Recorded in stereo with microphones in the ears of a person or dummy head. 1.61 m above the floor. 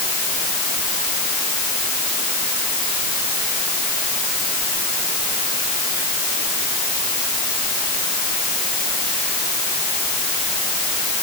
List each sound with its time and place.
Only background noise.